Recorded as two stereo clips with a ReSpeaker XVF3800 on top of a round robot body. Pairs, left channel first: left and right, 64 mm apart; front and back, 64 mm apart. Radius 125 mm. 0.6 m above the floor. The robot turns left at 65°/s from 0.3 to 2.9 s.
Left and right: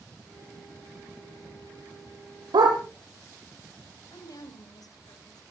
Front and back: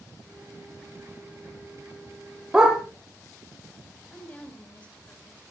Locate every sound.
2.5 s a dog barking: 95° right, 5.5 m; by 2.8 s 110° right, 5.5 m
4.1 s a woman speaking: 70° left, 4.5 m